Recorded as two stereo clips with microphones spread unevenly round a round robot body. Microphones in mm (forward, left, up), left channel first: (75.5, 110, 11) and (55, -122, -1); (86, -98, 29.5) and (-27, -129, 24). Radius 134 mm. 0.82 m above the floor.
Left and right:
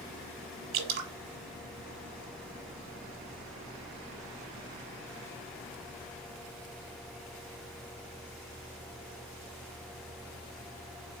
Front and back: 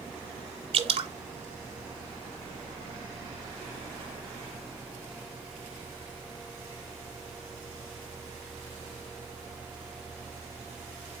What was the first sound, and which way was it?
Dripping, 145° right.